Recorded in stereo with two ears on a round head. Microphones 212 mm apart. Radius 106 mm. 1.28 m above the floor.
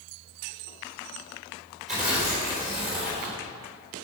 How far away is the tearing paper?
About 3.5 m.